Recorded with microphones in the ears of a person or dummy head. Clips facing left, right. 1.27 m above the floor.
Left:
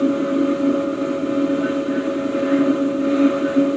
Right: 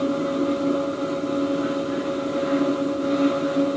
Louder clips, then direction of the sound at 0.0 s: Left 5 dB; 30° left (ahead or behind).